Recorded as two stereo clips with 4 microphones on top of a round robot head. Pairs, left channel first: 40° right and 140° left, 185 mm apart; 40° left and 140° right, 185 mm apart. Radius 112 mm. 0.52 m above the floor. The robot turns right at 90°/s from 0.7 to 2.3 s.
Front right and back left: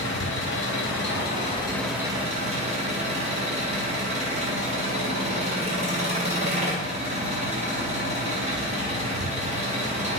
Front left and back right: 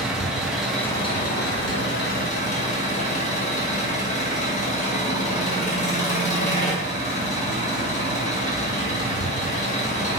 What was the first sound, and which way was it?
An engine running, 55° right.